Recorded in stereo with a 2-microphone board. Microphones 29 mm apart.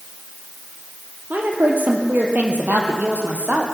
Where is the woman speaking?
60° right (ahead or behind), 3 m; by 3.6 s 65° right (ahead or behind), 4 m.